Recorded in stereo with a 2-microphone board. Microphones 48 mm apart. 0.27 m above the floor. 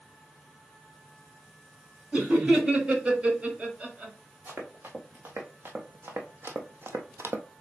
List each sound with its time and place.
2.1 s laughter: 25° right (ahead or behind), 1.6 m
4.5 s running footsteps: 40° right (ahead or behind), 2 m; by 7.5 s 60° right (ahead or behind), 0.6 m